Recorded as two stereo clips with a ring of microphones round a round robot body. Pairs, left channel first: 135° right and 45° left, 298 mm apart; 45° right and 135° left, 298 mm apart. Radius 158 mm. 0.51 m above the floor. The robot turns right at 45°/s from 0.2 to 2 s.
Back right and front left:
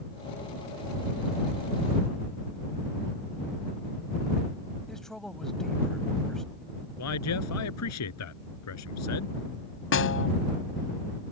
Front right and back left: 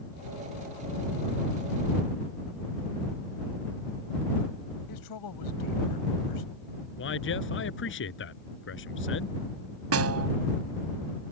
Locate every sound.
4.9 s a man speaking: 45° right
7.0 s a man speaking: 95° right
9.9 s a snare drum: 175° left